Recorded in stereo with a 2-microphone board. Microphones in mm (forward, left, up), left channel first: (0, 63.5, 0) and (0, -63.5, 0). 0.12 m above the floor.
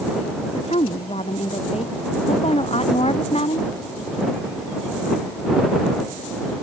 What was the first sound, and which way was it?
A woman speaking, 50° left (ahead or behind).